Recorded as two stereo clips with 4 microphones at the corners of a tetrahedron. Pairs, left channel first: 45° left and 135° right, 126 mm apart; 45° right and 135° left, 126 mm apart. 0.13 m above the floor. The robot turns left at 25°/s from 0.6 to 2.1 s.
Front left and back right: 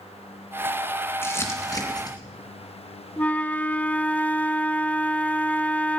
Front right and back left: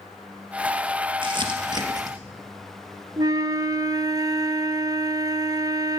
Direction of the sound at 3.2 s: 115° left.